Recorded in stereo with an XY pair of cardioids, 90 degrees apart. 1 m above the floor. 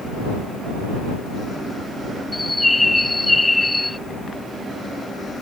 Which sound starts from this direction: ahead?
A bird, at 2.3 s.